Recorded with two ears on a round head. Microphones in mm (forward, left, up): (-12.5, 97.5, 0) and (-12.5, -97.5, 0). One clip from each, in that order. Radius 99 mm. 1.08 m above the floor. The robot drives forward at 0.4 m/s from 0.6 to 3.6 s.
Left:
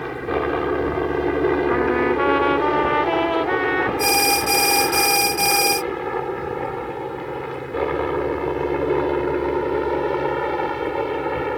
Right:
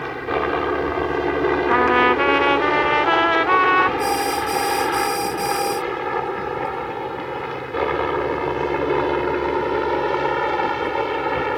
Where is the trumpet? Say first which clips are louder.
Right 4 dB; 80° right; by 3.9 s 45° right (ahead or behind).